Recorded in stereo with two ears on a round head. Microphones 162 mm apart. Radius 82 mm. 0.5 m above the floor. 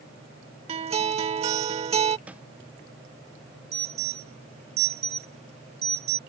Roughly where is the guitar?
Right.